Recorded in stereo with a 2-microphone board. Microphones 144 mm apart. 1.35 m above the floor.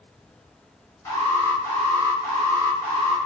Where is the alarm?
20° left (ahead or behind), 0.9 m.